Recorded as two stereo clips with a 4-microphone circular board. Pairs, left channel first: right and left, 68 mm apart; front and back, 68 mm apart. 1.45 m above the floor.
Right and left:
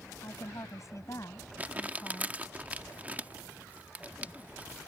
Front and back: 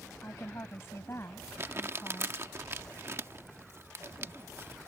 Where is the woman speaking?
50° right; by 2.4 s 45° right.